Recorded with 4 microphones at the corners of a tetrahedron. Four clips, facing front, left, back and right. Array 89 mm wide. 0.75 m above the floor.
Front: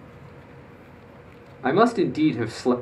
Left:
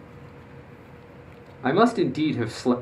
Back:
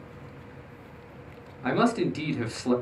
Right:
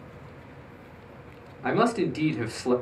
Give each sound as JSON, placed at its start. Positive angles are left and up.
{"t": 1.6, "sound": "a man speaking", "azimuth_deg": 40, "distance_m": 0.6}